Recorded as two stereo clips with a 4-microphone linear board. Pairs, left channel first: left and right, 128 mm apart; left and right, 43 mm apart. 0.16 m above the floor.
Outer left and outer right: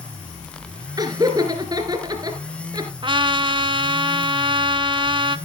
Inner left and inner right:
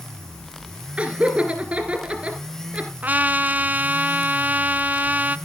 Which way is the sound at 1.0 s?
30° right (ahead or behind).